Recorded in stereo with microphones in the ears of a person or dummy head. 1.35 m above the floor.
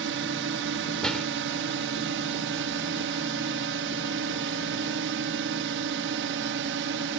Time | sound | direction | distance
0.0 | a drone | 60° right (ahead or behind) | ?
1.0 | a door slam | 5° left (ahead or behind) | ?